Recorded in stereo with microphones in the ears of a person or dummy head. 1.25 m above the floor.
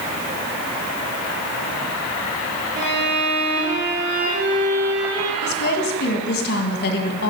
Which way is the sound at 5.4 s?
55° left (ahead or behind).